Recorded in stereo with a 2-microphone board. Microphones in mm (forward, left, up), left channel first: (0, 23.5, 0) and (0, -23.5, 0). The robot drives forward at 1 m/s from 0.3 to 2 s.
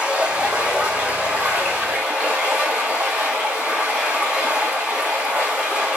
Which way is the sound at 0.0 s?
20° right (ahead or behind).